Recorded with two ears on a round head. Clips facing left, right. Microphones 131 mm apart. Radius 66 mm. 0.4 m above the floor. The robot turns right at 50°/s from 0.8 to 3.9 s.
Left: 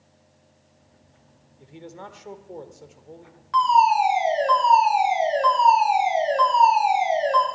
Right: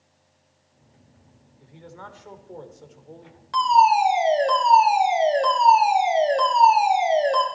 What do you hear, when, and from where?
1.6 s a man speaking: 25° left (ahead or behind), 1.1 m; by 3.4 s 5° right (ahead or behind), 1.1 m
3.5 s a fire alarm: 40° right (ahead or behind), 3 m